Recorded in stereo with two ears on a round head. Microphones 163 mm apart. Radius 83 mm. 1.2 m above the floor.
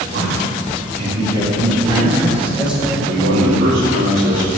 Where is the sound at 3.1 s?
80° right, 3.5 m.